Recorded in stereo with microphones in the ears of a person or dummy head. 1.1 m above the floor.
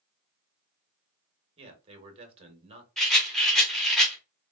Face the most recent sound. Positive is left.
turn(degrees=5)  # may be behind; listen again after turning